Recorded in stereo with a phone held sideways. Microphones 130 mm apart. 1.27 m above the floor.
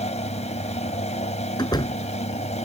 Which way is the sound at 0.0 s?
55° left (ahead or behind).